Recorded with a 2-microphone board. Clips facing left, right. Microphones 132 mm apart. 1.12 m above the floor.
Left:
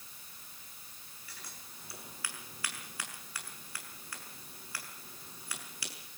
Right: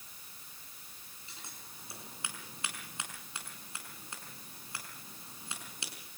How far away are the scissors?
About 6.5 m.